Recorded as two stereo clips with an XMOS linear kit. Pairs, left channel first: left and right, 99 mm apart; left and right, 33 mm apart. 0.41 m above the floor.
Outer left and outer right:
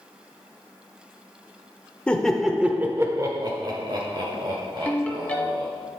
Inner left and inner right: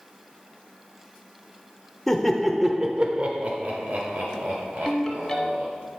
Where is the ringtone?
15° left (ahead or behind), 1.3 m.